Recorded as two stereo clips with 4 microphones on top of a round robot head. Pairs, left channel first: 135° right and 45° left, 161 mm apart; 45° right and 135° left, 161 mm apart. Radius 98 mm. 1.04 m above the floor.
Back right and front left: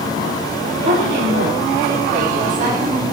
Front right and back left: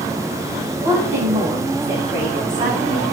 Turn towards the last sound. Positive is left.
turn(degrees=80)